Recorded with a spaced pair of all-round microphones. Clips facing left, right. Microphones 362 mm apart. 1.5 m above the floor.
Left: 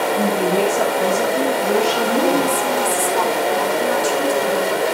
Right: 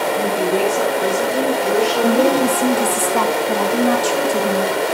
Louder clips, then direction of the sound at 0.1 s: Left 1 dB; 65° left (ahead or behind).